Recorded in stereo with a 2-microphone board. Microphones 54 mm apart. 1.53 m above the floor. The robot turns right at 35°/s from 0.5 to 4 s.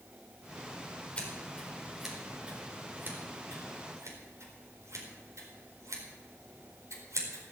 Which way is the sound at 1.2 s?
25° left (ahead or behind).